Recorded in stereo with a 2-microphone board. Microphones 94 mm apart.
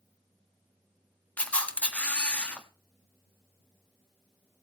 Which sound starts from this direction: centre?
A camera shutter, at 1.4 s.